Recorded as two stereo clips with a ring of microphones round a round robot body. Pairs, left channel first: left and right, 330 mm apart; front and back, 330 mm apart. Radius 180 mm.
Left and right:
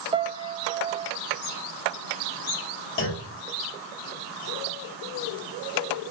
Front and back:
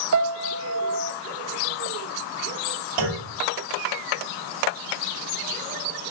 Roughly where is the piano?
Behind.